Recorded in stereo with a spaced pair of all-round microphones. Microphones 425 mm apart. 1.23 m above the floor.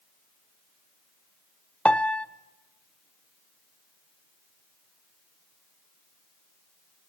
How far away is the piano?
About 0.6 m.